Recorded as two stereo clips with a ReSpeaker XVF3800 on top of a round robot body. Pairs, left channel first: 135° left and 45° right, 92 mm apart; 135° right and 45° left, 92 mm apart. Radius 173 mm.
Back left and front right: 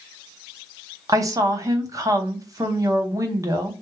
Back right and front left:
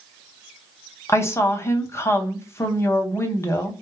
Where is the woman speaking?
85° right, 1.2 m.